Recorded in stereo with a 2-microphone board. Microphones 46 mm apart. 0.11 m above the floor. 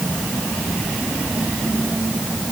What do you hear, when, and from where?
Only background noise.